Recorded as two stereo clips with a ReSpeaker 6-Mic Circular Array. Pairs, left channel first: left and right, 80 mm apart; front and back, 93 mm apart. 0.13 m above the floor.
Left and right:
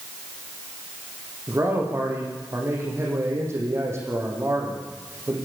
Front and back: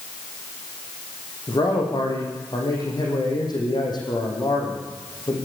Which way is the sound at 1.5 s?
40° right.